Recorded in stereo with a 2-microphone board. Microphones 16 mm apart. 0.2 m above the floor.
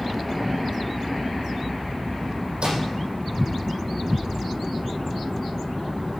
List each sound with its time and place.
2.6 s a microwave: 70° right (ahead or behind), 7.5 m